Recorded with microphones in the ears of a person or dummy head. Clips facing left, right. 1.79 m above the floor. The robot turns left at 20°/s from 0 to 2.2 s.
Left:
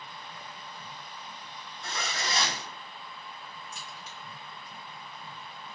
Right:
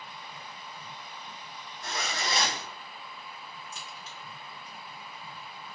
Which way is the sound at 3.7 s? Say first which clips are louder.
Even; 55° right (ahead or behind).